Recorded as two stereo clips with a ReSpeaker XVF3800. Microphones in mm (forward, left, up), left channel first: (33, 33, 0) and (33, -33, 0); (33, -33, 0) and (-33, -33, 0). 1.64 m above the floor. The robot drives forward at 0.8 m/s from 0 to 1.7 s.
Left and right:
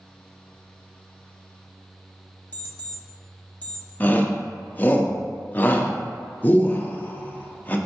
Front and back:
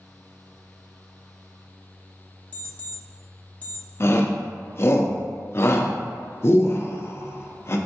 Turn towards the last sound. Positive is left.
turn(degrees=35)